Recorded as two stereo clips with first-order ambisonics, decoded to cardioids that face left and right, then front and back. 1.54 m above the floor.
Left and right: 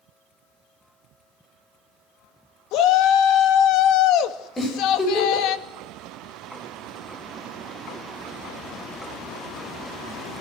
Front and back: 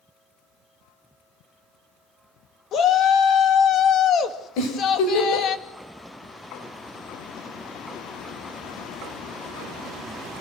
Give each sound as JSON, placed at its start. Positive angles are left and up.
{"t": 2.7, "sound": "a shout", "azimuth_deg": 55, "distance_m": 2.0}
{"t": 4.6, "sound": "a giggle", "azimuth_deg": 10, "distance_m": 6.5}